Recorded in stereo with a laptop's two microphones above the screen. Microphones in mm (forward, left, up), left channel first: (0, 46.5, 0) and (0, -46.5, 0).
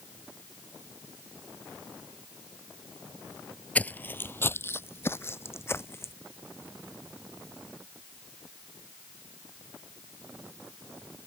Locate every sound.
3.8 s footsteps: 15° left (ahead or behind); by 6.1 s 25° left (ahead or behind)